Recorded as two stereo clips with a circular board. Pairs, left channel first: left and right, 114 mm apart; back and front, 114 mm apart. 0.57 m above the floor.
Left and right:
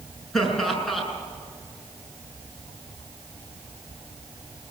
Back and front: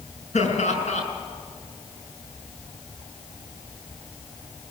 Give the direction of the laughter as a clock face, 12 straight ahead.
6 o'clock.